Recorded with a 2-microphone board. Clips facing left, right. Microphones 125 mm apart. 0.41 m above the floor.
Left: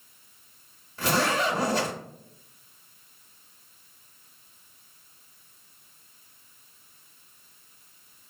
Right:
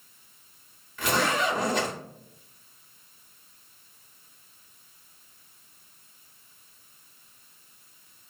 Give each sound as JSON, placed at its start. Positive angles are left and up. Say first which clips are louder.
{"t": 1.0, "sound": "a zipper", "louder": "left 1 dB", "side_deg": 35, "distance_m": 1.2}